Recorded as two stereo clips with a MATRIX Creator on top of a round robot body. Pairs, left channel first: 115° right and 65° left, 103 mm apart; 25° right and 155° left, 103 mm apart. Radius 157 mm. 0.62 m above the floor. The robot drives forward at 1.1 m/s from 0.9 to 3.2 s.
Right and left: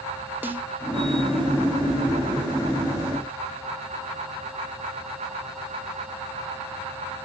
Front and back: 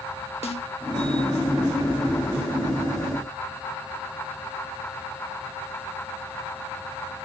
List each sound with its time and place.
0.4 s a snare drum: 5° right, 1.8 m